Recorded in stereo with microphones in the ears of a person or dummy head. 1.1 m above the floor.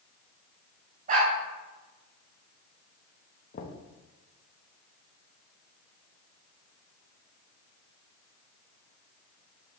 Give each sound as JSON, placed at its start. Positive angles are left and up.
{"t": 1.1, "sound": "a dog barking", "side_deg": -50, "distance_m": 2.5}
{"t": 3.5, "sound": "knocking", "side_deg": 45, "distance_m": 1.0}